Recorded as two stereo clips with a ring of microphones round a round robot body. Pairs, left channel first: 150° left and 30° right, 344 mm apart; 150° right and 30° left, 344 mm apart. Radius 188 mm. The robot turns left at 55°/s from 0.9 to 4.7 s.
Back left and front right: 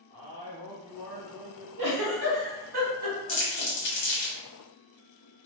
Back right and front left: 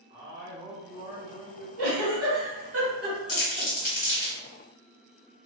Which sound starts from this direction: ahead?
A giggle, at 1.8 s.